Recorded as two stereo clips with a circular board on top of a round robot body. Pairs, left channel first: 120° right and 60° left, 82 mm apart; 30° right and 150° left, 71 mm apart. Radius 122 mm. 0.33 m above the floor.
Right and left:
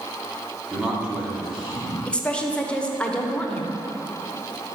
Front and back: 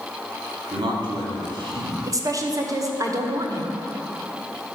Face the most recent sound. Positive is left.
turn(degrees=165)